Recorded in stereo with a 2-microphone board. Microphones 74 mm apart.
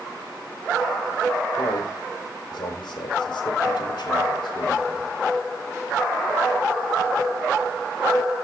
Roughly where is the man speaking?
Left.